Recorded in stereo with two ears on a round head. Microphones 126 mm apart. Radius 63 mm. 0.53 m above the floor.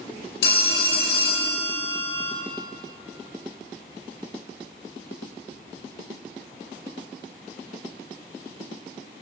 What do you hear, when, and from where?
0.4 s a phone ringing: 70° left (ahead or behind), 1.3 m